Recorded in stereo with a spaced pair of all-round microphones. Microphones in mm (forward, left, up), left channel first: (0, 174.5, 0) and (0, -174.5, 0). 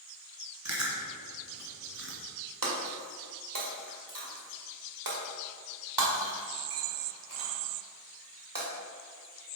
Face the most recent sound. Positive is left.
turn(degrees=-65)  # may be behind; listen again after turning